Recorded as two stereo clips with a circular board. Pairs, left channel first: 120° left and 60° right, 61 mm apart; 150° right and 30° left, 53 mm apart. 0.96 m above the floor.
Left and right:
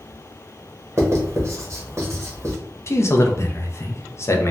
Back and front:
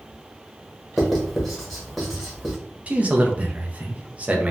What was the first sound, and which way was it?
Writing, 65° right.